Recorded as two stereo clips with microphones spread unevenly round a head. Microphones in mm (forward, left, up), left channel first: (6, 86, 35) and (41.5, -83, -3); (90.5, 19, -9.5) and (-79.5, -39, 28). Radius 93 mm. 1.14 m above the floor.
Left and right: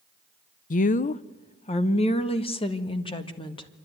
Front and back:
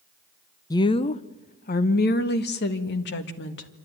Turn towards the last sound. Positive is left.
turn(degrees=35)